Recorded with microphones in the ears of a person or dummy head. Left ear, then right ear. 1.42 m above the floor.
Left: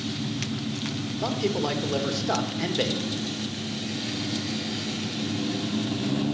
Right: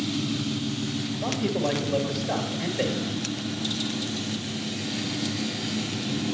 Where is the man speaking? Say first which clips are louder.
Left 1 dB; 40° left (ahead or behind), 1.9 m.